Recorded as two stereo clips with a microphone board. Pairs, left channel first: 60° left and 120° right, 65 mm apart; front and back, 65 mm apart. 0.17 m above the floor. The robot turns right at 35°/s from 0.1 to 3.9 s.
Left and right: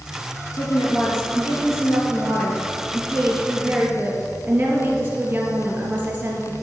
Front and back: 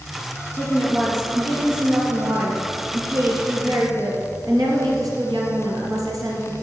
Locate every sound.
0.5 s a woman speaking: 60° left, 3 m; by 6.5 s straight behind, 3 m